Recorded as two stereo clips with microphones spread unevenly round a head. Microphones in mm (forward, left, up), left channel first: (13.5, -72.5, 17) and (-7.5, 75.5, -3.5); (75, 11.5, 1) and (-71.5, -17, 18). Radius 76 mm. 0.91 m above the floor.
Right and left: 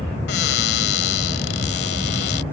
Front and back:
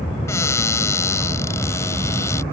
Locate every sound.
0.3 s a cupboard door: 65° right